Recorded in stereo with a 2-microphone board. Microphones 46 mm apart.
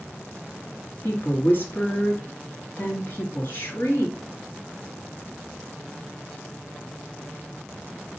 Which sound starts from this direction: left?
A woman speaking, at 1.0 s.